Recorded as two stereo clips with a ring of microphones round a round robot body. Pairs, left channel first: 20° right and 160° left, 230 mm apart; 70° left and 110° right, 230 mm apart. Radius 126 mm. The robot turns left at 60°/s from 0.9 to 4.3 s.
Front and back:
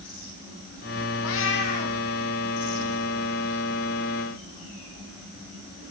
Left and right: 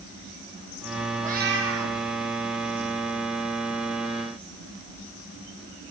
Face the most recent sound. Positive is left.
turn(degrees=125)